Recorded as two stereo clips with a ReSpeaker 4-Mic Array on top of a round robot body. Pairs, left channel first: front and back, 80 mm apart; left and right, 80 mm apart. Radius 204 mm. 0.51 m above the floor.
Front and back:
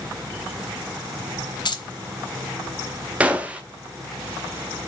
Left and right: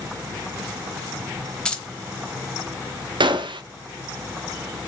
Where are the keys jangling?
10° left, 1.2 m.